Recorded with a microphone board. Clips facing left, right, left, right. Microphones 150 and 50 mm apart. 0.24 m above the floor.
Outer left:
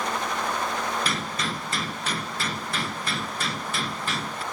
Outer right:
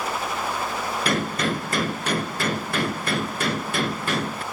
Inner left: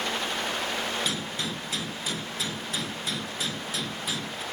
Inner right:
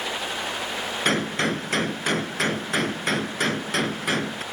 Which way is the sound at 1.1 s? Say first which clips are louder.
Outer right 6 dB, inner right 8 dB; 60° right (ahead or behind).